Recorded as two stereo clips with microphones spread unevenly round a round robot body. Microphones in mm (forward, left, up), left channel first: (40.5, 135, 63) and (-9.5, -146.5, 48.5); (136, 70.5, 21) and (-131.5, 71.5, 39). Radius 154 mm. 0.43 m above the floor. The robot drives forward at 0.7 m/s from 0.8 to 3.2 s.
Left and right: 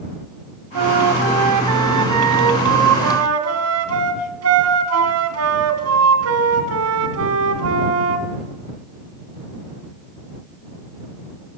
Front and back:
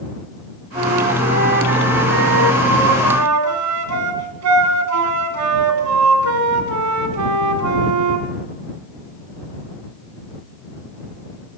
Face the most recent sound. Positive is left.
turn(degrees=-140)